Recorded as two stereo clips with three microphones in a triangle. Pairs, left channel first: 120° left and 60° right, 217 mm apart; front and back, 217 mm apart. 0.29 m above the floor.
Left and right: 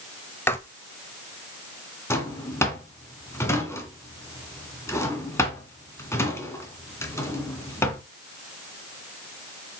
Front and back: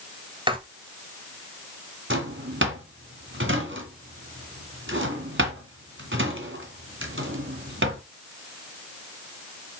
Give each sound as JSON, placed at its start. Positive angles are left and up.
{"t": 0.5, "sound": "writing", "azimuth_deg": -175, "distance_m": 1.1}
{"t": 2.1, "sound": "a drawer", "azimuth_deg": -165, "distance_m": 1.9}